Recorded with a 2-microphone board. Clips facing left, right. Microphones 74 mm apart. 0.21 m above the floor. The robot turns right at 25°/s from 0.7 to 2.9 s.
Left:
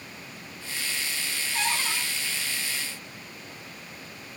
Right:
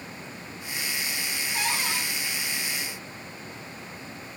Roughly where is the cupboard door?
Centre.